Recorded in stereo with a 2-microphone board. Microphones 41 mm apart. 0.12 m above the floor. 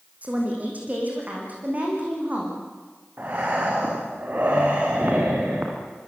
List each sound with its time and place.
0.2 s a woman speaking: 35° right (ahead or behind), 7 m; by 2.6 s 40° right (ahead or behind), 10 m
3.2 s breathing: 45° right (ahead or behind), 5 m